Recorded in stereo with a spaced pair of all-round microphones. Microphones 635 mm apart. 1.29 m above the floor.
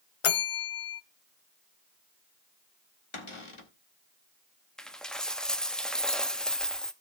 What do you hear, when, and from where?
0.2 s a bell: 55° left (ahead or behind), 0.6 m
3.1 s a cupboard door: 50° left (ahead or behind), 1.6 m
4.8 s a dropped coin: centre (ahead or behind), 0.7 m